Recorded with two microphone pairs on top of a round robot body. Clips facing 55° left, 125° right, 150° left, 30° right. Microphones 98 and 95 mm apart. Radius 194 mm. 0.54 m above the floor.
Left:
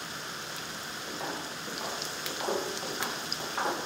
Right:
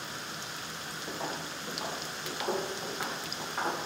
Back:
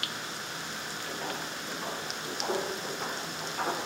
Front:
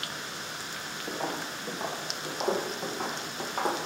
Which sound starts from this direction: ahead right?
Footsteps, at 1.1 s.